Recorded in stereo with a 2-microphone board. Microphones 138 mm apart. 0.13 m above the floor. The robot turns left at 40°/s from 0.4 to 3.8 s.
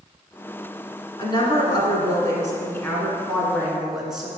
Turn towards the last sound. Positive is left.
turn(degrees=-10)